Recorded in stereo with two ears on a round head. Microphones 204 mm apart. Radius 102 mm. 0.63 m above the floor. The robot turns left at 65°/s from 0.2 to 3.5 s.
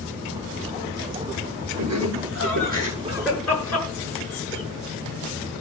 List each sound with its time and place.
1.8 s laughter: 75° right (ahead or behind), 8.5 m; by 4.6 s 10° left (ahead or behind), 8.5 m